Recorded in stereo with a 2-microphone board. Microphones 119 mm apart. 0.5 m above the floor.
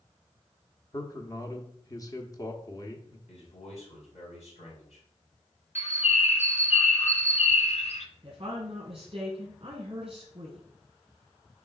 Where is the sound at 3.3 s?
75° left (ahead or behind), 4.5 m.